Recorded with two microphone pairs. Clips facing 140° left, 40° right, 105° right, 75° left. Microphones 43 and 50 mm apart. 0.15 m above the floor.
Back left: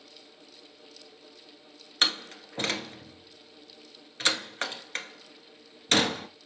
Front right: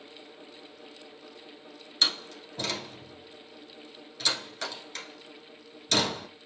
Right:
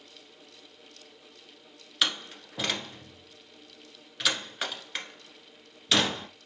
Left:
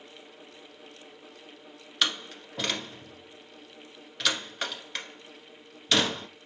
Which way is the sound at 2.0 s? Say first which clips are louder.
Back left 2 dB, even; 170° left.